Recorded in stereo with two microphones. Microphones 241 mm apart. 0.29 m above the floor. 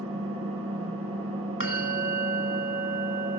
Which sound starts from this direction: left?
A bell, at 1.6 s.